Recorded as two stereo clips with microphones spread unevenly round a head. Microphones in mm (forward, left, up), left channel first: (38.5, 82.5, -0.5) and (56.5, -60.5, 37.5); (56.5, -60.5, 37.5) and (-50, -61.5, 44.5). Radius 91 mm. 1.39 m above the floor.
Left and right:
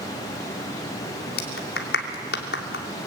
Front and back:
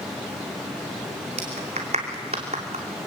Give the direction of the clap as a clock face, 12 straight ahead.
8 o'clock.